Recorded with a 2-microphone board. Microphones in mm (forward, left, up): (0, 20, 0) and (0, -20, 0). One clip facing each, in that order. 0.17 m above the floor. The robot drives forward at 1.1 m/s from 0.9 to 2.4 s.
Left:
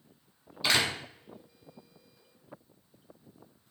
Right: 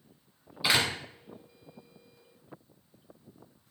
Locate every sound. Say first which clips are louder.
0.6 s a door slam: right 1 dB; 10° right (ahead or behind), 0.9 m